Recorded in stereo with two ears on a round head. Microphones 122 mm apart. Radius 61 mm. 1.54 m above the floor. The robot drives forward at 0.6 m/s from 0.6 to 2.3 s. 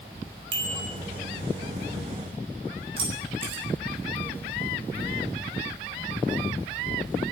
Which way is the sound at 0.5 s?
40° right (ahead or behind).